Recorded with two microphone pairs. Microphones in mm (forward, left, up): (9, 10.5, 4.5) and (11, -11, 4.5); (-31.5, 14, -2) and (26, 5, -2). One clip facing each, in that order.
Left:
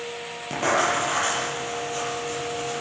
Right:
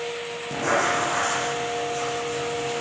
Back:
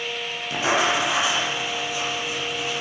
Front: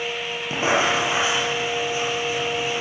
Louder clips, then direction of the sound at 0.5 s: Even, front 1 dB; 50° left.